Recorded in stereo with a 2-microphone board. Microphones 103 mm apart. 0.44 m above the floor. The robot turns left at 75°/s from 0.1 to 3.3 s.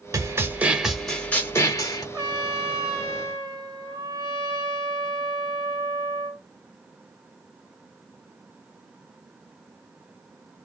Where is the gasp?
No gasp in this recording.